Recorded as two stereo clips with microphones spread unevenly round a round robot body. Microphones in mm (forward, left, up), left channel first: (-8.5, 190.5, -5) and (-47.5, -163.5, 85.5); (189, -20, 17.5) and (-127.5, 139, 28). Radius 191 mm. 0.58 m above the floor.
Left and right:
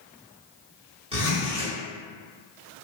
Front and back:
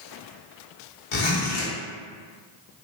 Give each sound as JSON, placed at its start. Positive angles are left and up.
{"t": 1.1, "sound": "a zipper", "azimuth_deg": -20, "distance_m": 1.1}